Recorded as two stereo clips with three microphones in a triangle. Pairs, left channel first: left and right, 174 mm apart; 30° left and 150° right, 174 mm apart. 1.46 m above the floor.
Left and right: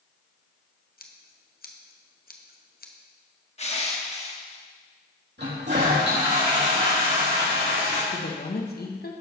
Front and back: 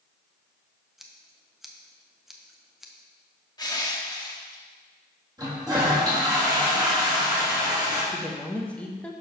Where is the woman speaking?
115° left, 1.3 m.